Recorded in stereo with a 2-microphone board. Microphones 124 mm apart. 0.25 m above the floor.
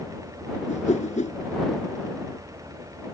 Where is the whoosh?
75° left (ahead or behind).